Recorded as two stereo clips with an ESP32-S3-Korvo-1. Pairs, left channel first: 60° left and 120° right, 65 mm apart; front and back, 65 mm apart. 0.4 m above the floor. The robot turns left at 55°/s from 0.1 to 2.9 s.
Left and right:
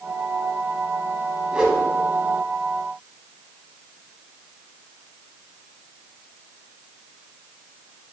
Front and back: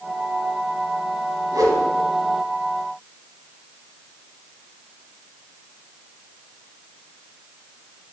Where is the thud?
No thud in this recording.